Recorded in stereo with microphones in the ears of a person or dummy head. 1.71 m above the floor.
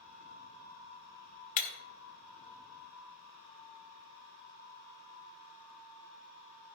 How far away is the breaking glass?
About 1.3 m.